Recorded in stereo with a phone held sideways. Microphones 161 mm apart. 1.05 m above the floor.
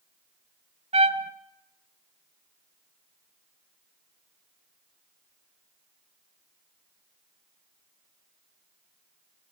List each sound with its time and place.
0.9 s a trumpet: 40° right (ahead or behind), 1.2 m